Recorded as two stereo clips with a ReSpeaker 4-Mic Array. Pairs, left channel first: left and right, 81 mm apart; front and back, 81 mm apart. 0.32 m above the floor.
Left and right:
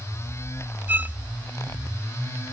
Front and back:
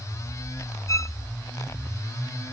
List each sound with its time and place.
0.9 s a violin: 30° right